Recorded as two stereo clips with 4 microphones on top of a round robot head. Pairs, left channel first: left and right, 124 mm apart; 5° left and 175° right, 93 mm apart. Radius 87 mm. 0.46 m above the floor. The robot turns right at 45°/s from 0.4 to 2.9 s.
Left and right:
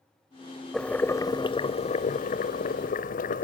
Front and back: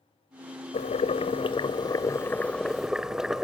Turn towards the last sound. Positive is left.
turn(degrees=100)